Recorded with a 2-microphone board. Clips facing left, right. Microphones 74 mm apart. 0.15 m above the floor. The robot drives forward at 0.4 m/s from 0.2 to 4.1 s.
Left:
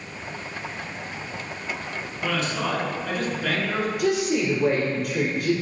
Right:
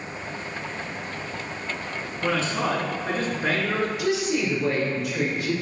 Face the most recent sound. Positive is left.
turn(degrees=55)  # may be behind; listen again after turning